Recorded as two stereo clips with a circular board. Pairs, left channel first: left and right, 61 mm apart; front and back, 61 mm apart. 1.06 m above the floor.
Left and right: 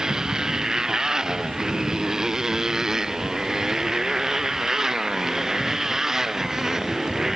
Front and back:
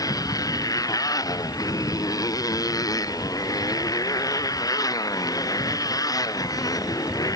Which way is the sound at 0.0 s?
10° right.